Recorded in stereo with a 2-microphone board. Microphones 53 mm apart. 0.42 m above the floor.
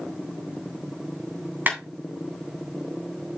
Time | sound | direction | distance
1.7 | a clap | 35° right (ahead or behind) | 3 m